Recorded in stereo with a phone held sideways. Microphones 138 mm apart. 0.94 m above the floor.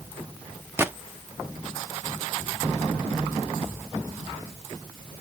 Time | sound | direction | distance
0.8 | a gunshot | 15° right (ahead or behind) | 0.6 m